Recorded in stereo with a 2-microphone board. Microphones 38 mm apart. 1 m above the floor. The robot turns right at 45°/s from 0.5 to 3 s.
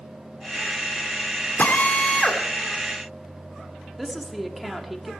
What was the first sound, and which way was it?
A drill, 125° left.